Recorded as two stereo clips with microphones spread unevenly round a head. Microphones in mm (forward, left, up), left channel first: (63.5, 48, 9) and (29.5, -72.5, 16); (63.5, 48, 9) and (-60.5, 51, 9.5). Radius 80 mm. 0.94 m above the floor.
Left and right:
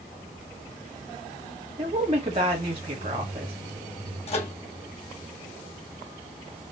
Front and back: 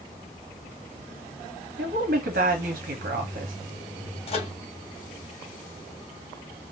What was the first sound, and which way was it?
A woman speaking, 160° right.